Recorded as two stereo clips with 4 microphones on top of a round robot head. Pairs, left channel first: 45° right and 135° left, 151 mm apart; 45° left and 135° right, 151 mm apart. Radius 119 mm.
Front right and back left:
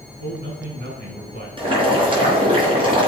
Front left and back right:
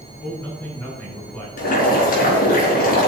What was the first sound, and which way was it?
A man speaking, 125° left.